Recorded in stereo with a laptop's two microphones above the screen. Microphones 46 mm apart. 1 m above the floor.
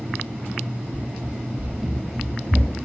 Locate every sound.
0.9 s running footsteps: 25° right (ahead or behind), 1.6 m; by 2.8 s 25° left (ahead or behind), 1.1 m